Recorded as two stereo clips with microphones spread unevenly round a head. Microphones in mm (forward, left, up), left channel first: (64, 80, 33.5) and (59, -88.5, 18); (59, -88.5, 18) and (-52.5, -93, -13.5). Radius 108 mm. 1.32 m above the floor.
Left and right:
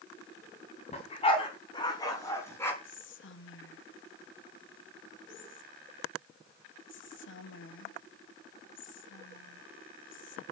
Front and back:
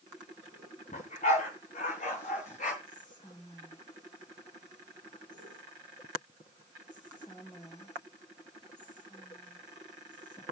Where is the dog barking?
35° left, 4 m; by 2.7 s 15° left, 5 m.